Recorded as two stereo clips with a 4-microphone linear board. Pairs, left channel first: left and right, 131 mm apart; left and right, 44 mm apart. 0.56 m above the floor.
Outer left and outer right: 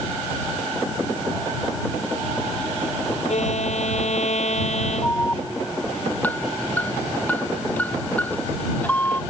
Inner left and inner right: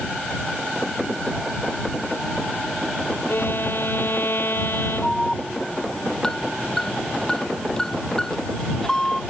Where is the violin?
60° left (ahead or behind).